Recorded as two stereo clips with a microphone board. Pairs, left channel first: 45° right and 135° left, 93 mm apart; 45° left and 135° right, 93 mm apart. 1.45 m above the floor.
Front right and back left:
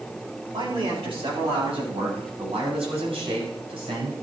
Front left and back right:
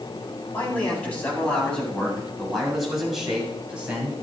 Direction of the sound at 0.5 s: 115° left.